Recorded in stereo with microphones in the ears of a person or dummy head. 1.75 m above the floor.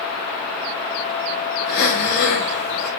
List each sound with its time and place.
1.7 s breathing: 50° left (ahead or behind), 6.5 m